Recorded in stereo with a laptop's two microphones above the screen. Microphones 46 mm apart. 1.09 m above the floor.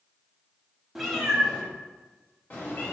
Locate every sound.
0.9 s a cat meowing: centre (ahead or behind), 0.9 m; by 2.9 s 50° left (ahead or behind), 1.4 m